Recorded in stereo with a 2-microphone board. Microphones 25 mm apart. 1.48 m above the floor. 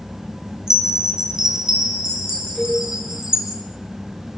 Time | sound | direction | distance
0.7 | a chime | 30° right (ahead or behind) | 2.5 m
2.5 | a cowbell | 85° right | 6 m